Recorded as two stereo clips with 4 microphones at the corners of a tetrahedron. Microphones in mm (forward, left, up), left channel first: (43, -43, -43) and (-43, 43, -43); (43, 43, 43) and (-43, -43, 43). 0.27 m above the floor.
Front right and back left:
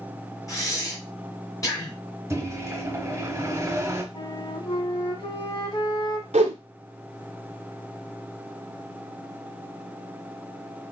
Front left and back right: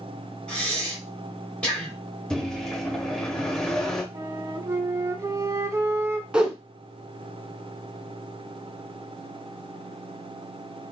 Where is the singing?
No singing in this recording.